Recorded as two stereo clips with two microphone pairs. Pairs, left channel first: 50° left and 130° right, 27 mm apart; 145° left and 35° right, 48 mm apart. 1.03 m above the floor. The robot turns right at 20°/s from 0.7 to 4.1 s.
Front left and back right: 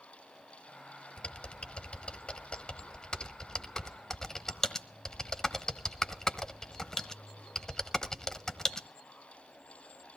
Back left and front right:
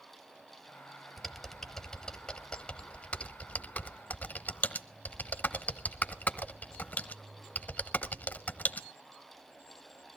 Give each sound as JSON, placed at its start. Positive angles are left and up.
{"t": 1.2, "sound": "typing on a keyboard", "azimuth_deg": 55, "distance_m": 0.9}